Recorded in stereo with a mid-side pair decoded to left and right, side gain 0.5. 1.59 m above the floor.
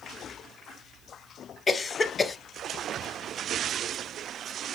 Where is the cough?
30° left, 0.7 m.